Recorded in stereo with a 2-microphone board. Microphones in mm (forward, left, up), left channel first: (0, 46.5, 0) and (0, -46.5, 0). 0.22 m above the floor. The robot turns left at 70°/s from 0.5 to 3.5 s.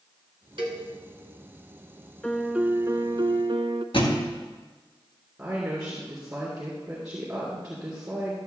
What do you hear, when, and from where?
0.6 s a cowbell: 60° right (ahead or behind), 2.0 m; by 0.8 s 65° right (ahead or behind), 2.0 m
2.2 s a piano: 5° left, 0.5 m; by 3.8 s 80° right, 0.5 m
3.9 s a thud: 70° left (ahead or behind), 1.8 m
5.4 s a woman speaking: 15° right (ahead or behind), 3 m